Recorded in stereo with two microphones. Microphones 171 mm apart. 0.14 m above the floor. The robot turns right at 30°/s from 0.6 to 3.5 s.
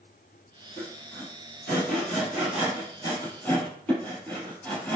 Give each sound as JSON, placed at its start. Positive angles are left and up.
{"t": 0.8, "sound": "sawing", "side_deg": 65, "distance_m": 1.9}